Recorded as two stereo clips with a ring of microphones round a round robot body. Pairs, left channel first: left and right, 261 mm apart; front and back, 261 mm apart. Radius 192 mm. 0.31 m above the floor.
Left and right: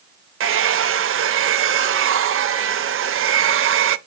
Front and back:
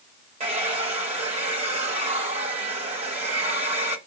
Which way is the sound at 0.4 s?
115° right.